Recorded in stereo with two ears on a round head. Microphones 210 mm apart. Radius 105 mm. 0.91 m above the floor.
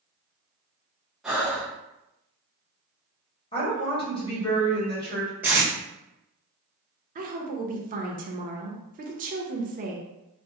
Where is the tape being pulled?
10° right (ahead or behind), 0.8 m.